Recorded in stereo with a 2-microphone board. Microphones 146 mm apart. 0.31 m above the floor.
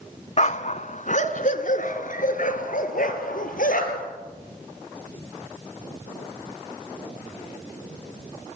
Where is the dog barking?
50° left (ahead or behind), 0.8 m; by 4.1 s 70° left (ahead or behind), 3 m.